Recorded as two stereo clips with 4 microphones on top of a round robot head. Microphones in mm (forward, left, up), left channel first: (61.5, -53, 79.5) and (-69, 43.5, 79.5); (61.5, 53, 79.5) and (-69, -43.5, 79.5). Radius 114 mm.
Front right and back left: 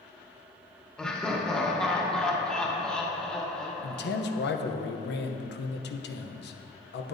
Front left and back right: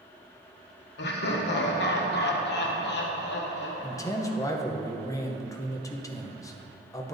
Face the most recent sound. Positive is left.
turn(degrees=-35)